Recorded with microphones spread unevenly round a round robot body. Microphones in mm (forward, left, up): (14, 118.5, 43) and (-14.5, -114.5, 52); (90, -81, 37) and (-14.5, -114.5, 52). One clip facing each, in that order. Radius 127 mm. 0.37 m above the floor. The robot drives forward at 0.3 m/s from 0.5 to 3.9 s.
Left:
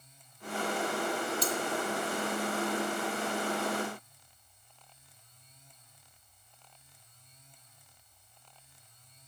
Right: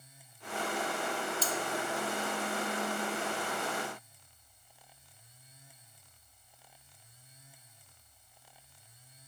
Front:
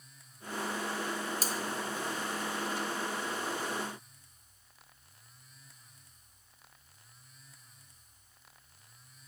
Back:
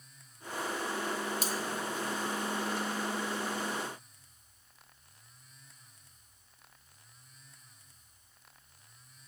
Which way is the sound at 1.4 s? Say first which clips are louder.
Left 3 dB, back 1 dB; 15° left.